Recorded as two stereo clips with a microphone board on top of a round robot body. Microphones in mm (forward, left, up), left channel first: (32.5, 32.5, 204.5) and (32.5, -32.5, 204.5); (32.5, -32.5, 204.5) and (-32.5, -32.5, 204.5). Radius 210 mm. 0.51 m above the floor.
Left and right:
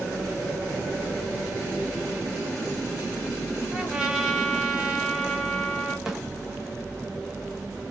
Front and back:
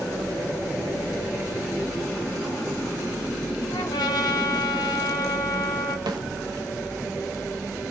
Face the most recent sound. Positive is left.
turn(degrees=-170)